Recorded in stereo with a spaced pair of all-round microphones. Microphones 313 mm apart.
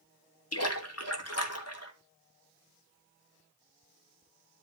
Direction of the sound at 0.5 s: 50° left (ahead or behind).